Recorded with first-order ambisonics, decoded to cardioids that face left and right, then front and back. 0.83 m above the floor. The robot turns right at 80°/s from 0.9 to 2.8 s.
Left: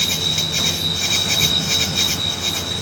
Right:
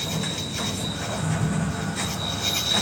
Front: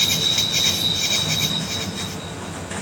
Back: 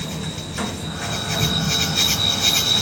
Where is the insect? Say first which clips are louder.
Left 10 dB, front 12 dB; 40° left; by 2.8 s 170° right.